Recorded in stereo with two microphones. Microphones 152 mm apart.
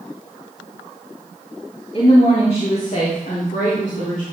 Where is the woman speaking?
45° left (ahead or behind), 3 m; by 4.2 s 75° left (ahead or behind), 4 m.